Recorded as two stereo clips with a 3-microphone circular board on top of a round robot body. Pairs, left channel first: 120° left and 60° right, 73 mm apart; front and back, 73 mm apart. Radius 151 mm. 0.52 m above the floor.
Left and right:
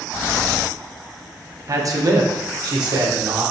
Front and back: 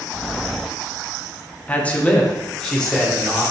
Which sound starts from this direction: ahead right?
A man speaking, at 1.7 s.